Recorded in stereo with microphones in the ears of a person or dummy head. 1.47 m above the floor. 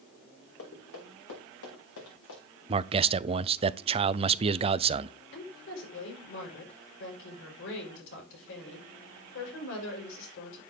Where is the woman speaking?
70° left (ahead or behind), 5.5 m.